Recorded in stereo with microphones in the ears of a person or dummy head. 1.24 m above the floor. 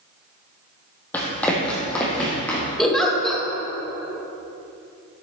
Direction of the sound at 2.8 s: 10° left (ahead or behind).